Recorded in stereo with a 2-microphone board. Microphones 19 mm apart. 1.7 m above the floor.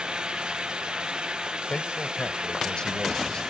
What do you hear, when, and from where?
1.7 s a man speaking: 50° left (ahead or behind)